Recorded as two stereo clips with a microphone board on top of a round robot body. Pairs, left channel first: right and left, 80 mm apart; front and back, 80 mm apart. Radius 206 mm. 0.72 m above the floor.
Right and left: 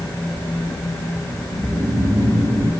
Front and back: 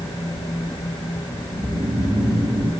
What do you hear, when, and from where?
1.5 s snoring: 140° left, 5 m